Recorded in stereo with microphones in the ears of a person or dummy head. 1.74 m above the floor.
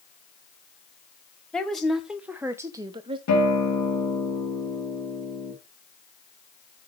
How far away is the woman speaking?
About 1.5 m.